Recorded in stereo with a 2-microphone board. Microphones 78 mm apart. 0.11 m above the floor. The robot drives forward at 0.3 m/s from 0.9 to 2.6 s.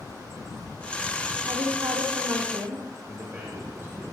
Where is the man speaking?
30° right (ahead or behind), 5 m.